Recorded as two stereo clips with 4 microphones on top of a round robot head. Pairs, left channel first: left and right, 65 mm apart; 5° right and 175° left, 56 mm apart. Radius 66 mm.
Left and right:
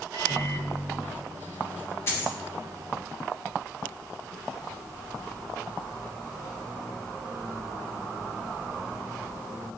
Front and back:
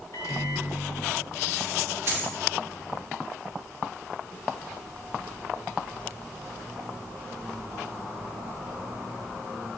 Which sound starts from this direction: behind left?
A dropped coin, at 2.1 s.